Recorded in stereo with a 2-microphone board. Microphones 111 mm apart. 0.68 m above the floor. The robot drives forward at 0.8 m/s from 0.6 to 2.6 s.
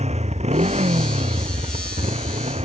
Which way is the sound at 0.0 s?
80° right.